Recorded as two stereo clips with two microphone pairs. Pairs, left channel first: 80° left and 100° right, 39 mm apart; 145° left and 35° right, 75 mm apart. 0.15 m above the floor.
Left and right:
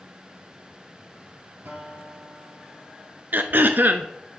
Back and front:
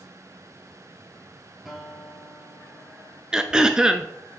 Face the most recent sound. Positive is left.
turn(degrees=-115)